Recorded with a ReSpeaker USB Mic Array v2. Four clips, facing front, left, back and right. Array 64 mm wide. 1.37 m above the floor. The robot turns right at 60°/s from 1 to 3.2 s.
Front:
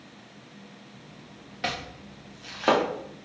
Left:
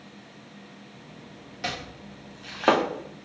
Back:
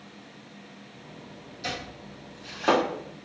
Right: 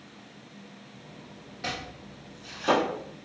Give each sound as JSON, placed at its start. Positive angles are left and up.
{"t": 1.6, "sound": "chopping", "azimuth_deg": 15, "distance_m": 0.9}